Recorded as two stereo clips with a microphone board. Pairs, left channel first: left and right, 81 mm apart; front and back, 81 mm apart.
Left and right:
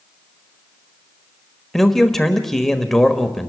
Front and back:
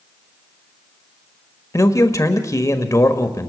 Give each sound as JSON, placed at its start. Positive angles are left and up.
{"t": 1.7, "sound": "a man speaking", "azimuth_deg": 5, "distance_m": 1.3}